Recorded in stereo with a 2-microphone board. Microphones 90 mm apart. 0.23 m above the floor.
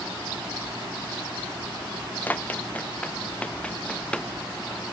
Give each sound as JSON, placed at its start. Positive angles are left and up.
{"t": 2.3, "sound": "running footsteps", "side_deg": 20}